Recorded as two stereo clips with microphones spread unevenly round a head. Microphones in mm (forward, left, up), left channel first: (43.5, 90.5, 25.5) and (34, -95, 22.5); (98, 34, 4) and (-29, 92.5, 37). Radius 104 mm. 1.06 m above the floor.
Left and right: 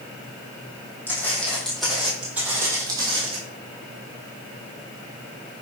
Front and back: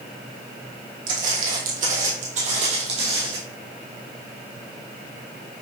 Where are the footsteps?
170° left, 2.5 m; by 3.4 s 155° right, 1.8 m.